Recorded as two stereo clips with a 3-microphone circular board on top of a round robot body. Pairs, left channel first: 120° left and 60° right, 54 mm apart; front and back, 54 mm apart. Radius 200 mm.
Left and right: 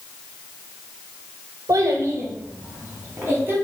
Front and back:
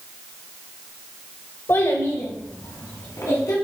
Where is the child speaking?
50° right, 0.6 m; by 3.5 s 5° right, 2.5 m.